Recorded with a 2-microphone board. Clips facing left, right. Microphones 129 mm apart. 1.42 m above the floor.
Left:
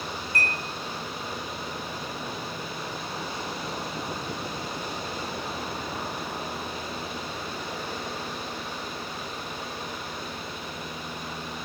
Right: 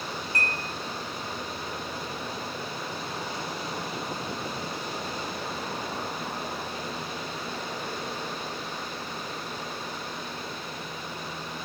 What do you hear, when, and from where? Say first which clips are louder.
0.3 s dishes clattering: left 2 dB; 30° right (ahead or behind), 3.5 m